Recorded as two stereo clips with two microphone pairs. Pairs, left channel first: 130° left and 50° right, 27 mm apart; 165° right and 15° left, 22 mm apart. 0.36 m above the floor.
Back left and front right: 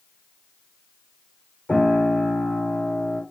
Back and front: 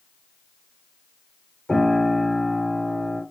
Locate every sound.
1.7 s a piano: 165° left, 7 m